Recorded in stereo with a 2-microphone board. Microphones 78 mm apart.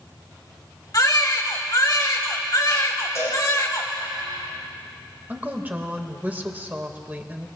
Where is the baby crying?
50° left (ahead or behind), 1.5 m.